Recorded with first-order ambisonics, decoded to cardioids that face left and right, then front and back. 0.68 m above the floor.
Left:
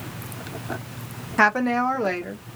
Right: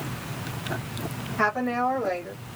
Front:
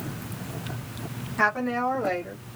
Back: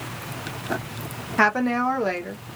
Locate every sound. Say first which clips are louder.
1.4 s a woman speaking: left 5 dB, back 4 dB; 130° left, 0.7 m